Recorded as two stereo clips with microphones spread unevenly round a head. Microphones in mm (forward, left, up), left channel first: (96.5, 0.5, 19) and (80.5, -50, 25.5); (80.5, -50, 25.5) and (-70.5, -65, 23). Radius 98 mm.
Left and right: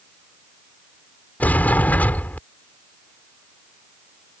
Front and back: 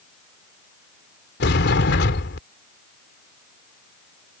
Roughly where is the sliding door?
Ahead.